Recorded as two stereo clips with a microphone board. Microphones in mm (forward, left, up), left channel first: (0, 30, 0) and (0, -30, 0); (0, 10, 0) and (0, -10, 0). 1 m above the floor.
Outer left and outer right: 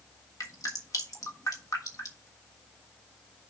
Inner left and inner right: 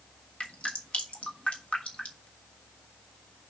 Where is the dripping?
70° left (ahead or behind), 1.5 m.